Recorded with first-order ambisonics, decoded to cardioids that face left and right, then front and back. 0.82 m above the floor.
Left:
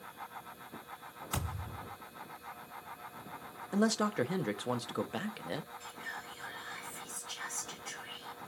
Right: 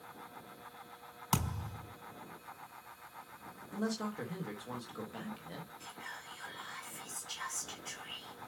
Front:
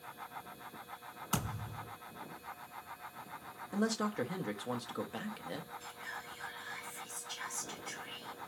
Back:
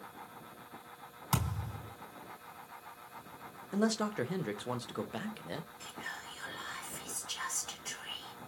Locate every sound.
1.3 s a thud: 120° right, 4 m
3.7 s a man speaking: 100° left, 0.5 m
5.8 s whispering: 170° right, 3 m